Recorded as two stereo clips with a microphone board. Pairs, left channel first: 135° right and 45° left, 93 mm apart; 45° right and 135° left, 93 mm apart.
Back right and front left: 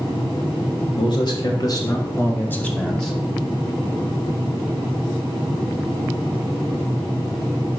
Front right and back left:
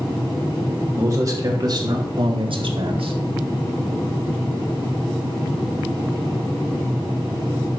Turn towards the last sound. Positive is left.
turn(degrees=135)